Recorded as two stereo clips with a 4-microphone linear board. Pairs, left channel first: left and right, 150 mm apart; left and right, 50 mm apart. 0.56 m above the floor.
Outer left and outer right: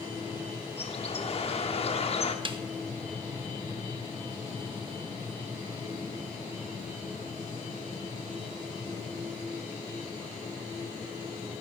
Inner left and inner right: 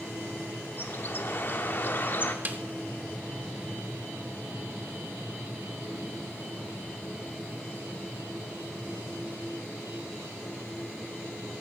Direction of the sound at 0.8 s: 45° left (ahead or behind).